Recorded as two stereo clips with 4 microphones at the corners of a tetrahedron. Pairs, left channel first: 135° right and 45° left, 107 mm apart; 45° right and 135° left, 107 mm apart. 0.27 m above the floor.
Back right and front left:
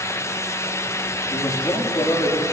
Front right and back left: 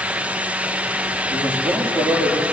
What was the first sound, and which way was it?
A man speaking, 170° left.